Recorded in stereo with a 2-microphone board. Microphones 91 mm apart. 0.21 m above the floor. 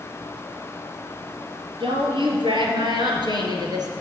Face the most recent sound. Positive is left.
turn(degrees=-50)  # may be behind; listen again after turning